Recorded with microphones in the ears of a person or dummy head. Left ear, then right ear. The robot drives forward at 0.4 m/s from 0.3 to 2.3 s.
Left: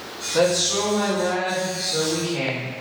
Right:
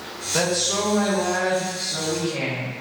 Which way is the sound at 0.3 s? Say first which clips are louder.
Left 3 dB; 30° right (ahead or behind).